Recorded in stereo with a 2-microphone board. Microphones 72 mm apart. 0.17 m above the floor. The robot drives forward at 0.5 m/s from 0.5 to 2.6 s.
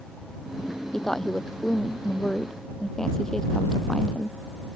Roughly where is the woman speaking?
Centre.